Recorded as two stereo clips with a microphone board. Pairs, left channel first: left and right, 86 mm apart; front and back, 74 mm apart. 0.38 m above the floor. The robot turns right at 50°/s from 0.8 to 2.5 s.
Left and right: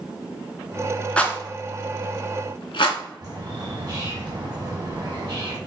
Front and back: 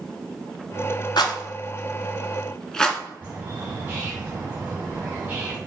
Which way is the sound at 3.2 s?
110° right.